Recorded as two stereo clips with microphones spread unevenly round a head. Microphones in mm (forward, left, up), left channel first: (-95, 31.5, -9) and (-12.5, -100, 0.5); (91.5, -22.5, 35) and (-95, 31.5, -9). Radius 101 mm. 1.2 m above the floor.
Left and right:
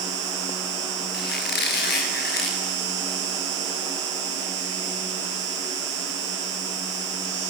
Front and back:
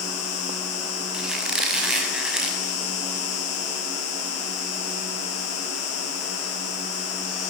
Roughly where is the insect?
Ahead right.